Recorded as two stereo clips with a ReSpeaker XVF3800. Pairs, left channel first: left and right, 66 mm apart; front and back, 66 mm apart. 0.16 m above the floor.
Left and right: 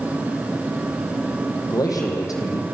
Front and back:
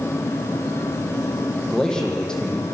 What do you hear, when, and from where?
1.7 s a man speaking: 80° left, 6 m